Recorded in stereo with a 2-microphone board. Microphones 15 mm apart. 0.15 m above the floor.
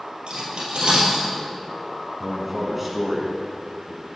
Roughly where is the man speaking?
Centre.